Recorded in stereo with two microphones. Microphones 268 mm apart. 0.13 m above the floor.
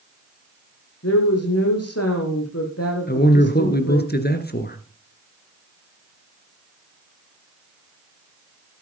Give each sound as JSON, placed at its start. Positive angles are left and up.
{"t": 1.0, "sound": "a woman speaking", "side_deg": 65, "distance_m": 5.0}
{"t": 3.1, "sound": "a man speaking", "side_deg": 35, "distance_m": 2.0}